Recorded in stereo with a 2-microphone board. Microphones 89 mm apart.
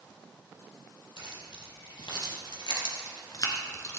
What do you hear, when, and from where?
1.2 s keys jangling: 75° left (ahead or behind), 3.5 m; by 4.0 s 35° left (ahead or behind), 1.3 m